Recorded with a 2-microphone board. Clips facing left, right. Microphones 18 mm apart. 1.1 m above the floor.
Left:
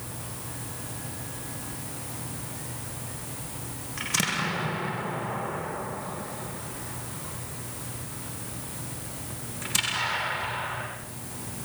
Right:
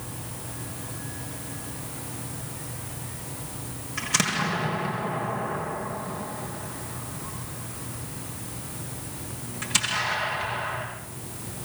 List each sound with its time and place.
4.0 s an explosion: 10° right (ahead or behind), 8 m